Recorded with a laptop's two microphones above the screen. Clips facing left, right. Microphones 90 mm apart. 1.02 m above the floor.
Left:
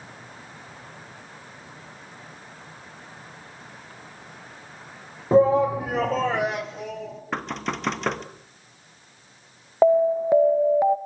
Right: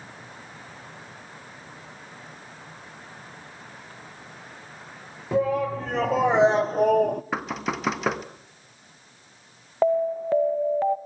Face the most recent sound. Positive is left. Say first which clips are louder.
# left 4 dB
turn(degrees=15)  # may be behind; listen again after turning